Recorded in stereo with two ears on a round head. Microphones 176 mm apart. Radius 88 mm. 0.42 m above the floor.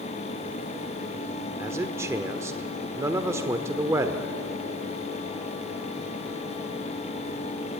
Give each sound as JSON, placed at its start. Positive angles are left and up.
{"t": 1.6, "sound": "a man speaking", "side_deg": -15, "distance_m": 1.2}